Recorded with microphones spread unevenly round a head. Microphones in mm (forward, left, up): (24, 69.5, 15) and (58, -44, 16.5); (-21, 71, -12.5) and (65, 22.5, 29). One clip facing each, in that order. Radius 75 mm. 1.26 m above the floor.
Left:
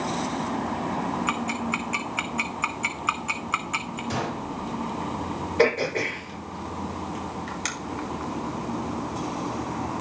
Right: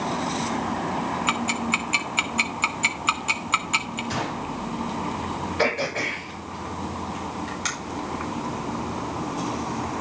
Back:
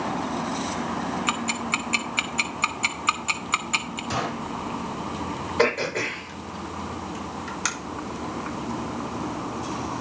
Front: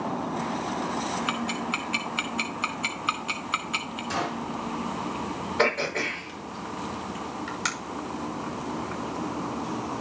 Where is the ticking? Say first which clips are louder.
Right 2 dB, back 2 dB; 140° right, 0.6 m.